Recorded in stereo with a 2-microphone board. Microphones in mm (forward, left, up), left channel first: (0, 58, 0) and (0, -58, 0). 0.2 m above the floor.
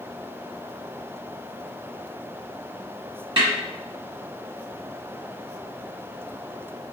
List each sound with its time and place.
3.4 s a snare drum: 50° right (ahead or behind), 1.7 m